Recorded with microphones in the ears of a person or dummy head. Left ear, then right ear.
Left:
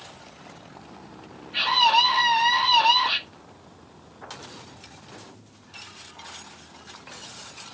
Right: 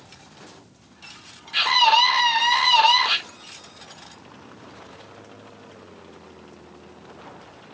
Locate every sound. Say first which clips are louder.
1.5 s a scream: right 2 dB; 65° right (ahead or behind), 2.5 m